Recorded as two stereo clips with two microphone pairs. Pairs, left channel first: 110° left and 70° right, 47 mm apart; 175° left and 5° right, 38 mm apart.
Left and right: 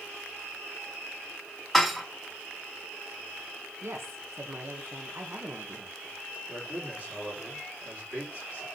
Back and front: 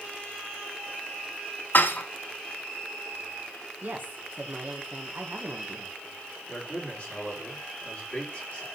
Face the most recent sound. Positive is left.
turn(degrees=-125)